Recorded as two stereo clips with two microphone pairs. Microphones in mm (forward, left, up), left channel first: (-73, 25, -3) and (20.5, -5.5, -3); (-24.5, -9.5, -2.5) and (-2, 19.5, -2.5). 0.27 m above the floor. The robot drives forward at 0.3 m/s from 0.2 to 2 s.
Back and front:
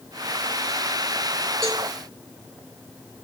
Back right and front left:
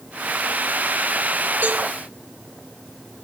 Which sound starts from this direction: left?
A cowbell, at 1.6 s.